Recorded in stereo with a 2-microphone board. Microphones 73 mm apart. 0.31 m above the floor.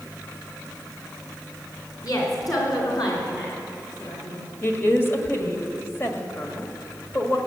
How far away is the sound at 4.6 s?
About 1.7 m.